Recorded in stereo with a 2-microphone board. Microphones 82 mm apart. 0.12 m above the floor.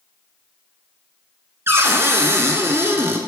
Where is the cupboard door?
30° right (ahead or behind), 1.0 m.